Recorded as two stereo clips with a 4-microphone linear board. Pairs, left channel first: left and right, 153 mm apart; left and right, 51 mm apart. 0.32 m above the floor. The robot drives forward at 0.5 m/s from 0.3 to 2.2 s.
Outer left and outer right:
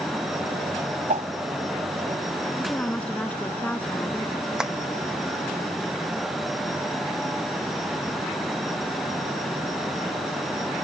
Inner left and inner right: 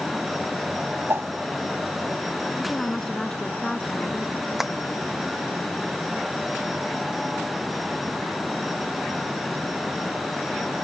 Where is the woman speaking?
10° left (ahead or behind).